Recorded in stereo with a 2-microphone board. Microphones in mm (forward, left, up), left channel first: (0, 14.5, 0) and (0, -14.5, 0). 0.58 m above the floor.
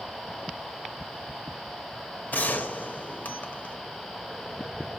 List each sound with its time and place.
2.3 s a gunshot: 70° left (ahead or behind), 0.8 m